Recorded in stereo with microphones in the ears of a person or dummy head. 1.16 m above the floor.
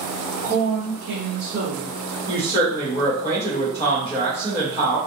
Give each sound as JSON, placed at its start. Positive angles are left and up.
{"t": 0.4, "sound": "a woman speaking", "side_deg": -20, "distance_m": 0.6}
{"t": 2.3, "sound": "a woman speaking", "side_deg": -20, "distance_m": 0.9}